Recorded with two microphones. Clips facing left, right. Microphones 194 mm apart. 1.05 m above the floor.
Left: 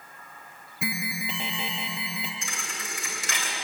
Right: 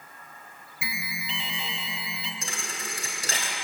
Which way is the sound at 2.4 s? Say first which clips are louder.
Right 2 dB; 40° right (ahead or behind).